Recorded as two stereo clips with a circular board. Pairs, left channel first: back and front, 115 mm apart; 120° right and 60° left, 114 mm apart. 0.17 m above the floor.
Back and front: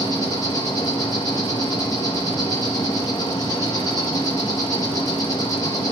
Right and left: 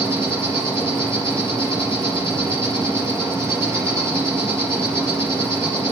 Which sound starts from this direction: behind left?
An insect, at 0.0 s.